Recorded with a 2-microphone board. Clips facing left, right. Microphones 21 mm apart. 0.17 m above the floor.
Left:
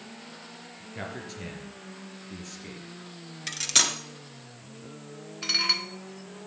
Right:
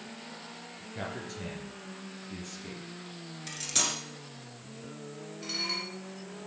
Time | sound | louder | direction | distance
0.9 | a man speaking | left 1 dB | 20° left (ahead or behind) | 3 m
3.5 | cutlery clinking | left 6 dB | 40° left (ahead or behind) | 1.7 m
5.4 | dishes clattering | left 8 dB | 55° left (ahead or behind) | 1.5 m